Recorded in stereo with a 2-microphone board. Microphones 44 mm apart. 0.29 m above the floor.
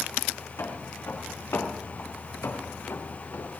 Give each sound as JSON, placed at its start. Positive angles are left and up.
{"t": 0.6, "sound": "footsteps", "side_deg": 80, "distance_m": 5.0}